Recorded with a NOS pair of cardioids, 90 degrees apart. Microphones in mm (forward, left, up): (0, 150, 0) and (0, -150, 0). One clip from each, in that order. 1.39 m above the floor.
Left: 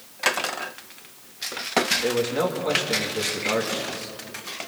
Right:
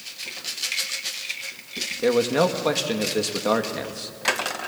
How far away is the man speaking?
About 2.5 m.